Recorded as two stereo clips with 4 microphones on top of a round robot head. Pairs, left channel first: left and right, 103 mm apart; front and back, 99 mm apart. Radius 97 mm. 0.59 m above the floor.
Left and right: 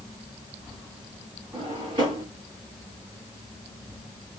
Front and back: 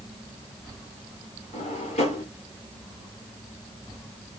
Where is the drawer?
30° right, 1.9 m.